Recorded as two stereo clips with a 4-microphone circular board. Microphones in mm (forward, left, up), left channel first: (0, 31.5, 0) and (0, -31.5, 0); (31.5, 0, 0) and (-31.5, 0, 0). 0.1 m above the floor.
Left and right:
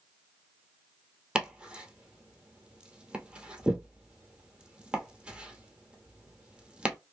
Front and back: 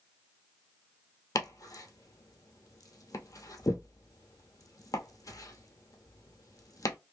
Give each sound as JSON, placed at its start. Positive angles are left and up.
{"t": 1.4, "sound": "chopping", "azimuth_deg": -15, "distance_m": 0.9}